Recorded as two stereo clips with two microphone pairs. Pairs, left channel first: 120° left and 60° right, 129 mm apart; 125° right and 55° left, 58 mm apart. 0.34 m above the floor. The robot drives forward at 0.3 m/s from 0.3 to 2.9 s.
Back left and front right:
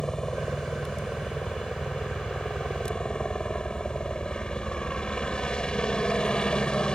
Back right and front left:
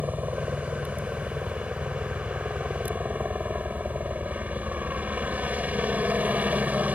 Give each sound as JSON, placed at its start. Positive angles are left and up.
{"t": 0.0, "sound": "a helicopter", "azimuth_deg": 35}